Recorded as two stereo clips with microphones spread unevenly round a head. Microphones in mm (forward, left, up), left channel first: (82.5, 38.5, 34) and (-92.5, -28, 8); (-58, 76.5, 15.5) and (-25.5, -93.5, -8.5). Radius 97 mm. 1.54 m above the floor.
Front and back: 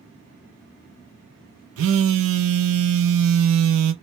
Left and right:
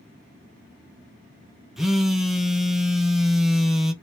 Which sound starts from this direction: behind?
A phone buzzing, at 1.8 s.